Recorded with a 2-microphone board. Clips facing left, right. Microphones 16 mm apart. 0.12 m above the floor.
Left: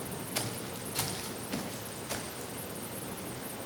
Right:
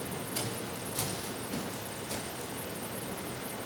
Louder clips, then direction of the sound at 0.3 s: Left 2 dB; 75° left (ahead or behind).